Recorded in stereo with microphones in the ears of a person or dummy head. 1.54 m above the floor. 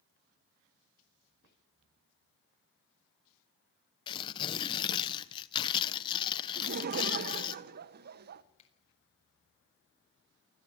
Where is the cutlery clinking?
I don't hear cutlery clinking.